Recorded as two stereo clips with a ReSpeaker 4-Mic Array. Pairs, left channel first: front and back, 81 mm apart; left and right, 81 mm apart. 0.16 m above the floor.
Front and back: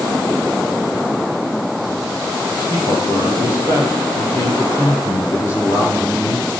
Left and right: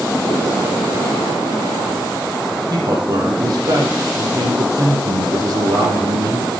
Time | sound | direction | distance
2.7 | a man speaking | 55° right | 5.5 m